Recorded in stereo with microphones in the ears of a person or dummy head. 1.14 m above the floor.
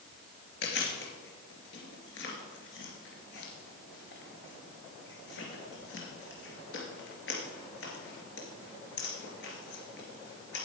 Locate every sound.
0.6 s chewing: 70° left (ahead or behind), 3 m